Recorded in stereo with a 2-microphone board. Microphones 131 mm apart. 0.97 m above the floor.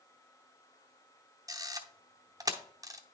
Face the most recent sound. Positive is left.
turn(degrees=-25)  # may be behind; listen again after turning